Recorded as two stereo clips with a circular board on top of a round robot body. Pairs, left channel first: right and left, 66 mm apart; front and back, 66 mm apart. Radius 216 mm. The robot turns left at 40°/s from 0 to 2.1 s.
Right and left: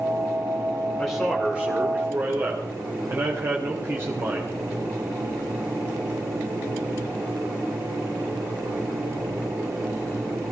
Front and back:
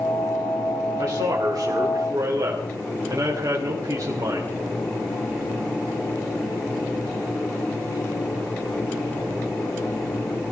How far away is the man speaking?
About 3 m.